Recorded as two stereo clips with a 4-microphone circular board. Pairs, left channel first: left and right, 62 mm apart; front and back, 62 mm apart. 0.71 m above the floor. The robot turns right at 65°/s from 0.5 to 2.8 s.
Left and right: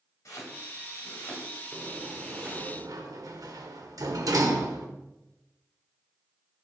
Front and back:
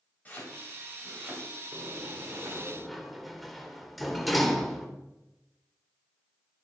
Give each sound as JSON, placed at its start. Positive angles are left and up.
{"t": 0.2, "sound": "chopping", "azimuth_deg": 60, "distance_m": 3.0}
{"t": 1.7, "sound": "a sliding door", "azimuth_deg": -160, "distance_m": 1.2}